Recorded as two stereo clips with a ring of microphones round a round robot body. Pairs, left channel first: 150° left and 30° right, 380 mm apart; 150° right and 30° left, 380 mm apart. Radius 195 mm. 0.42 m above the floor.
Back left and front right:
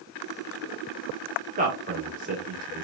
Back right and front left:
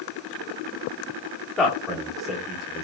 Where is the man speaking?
60° right, 0.9 m.